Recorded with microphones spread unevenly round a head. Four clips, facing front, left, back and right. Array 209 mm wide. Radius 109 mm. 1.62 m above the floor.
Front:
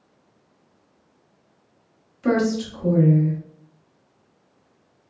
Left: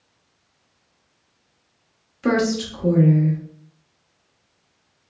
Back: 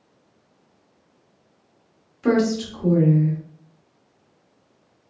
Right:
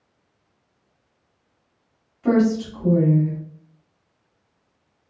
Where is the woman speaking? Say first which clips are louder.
Right 2 dB, back 1 dB; 130° left, 1.1 m.